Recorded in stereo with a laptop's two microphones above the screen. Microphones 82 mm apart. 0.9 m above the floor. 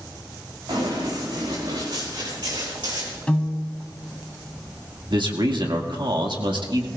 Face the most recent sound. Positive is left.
turn(degrees=-75)  # may be behind; listen again after turning